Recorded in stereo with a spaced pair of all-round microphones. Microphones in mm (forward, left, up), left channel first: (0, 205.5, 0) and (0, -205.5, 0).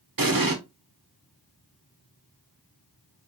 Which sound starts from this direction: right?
An explosion, at 0.2 s.